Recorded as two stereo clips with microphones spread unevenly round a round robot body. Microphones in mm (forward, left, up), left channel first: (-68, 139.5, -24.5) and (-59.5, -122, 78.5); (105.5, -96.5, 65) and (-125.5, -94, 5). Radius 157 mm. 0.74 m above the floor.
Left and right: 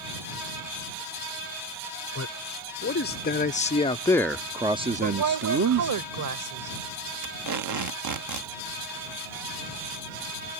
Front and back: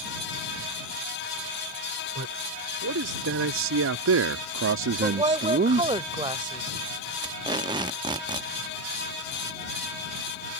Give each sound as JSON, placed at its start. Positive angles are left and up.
{"t": 2.1, "sound": "a man speaking", "azimuth_deg": 130}
{"t": 5.0, "sound": "a woman speaking", "azimuth_deg": -110}
{"t": 7.2, "sound": "tape being pulled", "azimuth_deg": -120}